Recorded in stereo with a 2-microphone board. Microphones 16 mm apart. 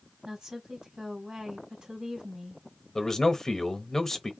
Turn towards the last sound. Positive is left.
turn(degrees=35)  # may be behind; listen again after turning